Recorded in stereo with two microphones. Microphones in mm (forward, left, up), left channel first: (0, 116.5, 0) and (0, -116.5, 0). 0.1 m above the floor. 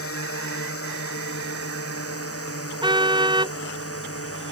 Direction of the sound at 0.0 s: 70° left (ahead or behind).